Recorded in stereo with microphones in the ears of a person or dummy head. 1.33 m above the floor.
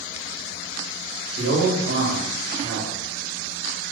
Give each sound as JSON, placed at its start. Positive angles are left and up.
{"t": 1.4, "sound": "a man speaking", "side_deg": -80, "distance_m": 1.1}